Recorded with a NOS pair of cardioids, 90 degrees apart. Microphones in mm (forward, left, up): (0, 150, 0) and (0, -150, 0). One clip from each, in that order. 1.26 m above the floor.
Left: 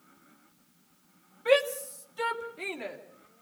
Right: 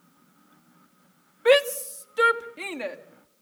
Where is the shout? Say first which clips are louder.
Right 5 dB; 65° right, 1.6 m; by 3.0 s 75° right, 3.5 m.